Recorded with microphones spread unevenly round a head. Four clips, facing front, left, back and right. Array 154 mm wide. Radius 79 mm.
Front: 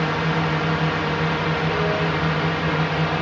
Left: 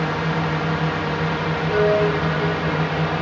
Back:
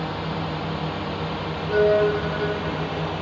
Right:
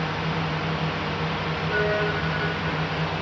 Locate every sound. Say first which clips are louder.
0.0 s a drone: left 5 dB, front 6 dB; 40° left; by 3.2 s 45° left
1.7 s a violin: left 7 dB, back 4 dB; 140° left